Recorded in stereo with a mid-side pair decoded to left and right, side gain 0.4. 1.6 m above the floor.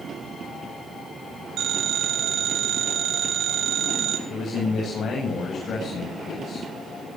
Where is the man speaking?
55° left, 8.5 m.